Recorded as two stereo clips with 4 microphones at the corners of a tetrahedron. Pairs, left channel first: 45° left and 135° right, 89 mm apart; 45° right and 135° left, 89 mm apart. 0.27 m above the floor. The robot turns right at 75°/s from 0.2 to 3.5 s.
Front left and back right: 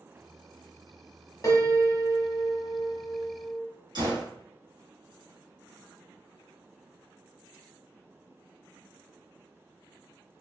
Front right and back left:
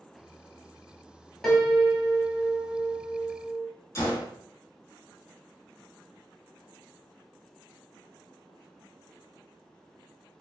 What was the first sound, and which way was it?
A piano, 35° left.